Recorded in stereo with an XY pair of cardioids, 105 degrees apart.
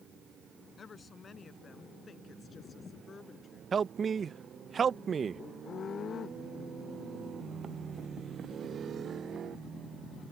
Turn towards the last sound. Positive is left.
turn(degrees=-40)